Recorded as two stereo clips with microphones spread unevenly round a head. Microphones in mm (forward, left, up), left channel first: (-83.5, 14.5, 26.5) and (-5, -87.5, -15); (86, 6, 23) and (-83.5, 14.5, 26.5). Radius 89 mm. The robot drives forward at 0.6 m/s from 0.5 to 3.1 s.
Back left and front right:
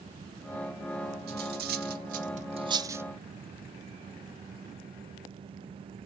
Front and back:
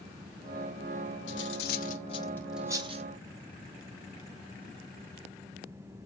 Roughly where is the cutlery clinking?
Ahead right.